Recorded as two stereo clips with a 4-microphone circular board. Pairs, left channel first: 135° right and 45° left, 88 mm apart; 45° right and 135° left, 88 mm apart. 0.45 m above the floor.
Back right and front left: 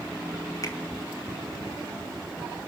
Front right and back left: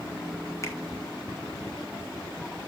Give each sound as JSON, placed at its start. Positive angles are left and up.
{"t": 0.6, "sound": "a finger snap", "azimuth_deg": -95, "distance_m": 2.5}